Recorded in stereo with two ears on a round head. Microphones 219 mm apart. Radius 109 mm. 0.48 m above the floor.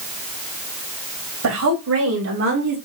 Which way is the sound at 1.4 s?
65° right (ahead or behind).